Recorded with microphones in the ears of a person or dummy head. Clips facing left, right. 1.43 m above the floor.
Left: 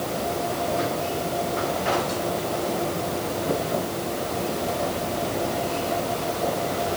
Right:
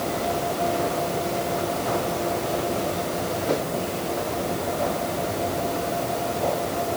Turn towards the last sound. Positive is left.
No sound to turn to.